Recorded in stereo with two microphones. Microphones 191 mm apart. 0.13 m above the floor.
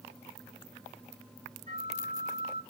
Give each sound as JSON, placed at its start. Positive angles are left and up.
{"t": 1.7, "sound": "a flute", "side_deg": -40, "distance_m": 0.9}